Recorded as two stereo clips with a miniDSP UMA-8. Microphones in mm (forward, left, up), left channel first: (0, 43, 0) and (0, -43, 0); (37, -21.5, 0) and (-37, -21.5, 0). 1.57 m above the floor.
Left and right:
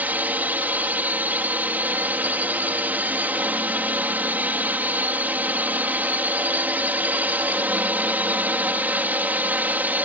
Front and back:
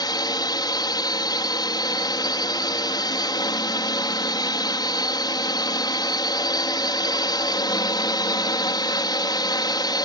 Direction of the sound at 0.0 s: 20° right.